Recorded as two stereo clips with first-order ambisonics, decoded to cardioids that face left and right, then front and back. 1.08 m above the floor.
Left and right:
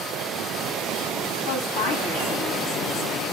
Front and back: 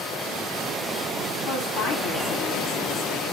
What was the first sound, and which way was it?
A woman speaking, 55° left.